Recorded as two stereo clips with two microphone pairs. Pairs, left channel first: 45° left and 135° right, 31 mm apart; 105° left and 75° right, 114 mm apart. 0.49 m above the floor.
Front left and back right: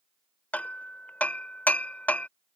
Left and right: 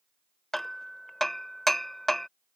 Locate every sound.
0.5 s hammering: 20° left